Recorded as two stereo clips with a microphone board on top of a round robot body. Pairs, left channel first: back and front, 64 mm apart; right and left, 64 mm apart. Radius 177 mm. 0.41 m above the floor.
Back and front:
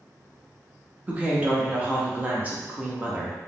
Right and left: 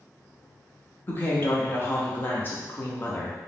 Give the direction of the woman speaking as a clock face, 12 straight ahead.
2 o'clock.